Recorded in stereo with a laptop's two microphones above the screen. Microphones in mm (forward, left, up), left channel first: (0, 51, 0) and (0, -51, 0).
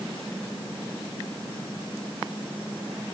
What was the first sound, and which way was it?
Only background noise.